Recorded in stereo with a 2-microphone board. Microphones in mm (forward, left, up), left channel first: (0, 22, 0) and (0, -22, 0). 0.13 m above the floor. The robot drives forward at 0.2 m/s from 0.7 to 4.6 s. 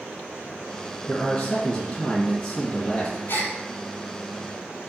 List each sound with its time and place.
1.1 s a man speaking: 10° left (ahead or behind), 1.4 m
3.3 s a gasp: 60° left (ahead or behind), 0.6 m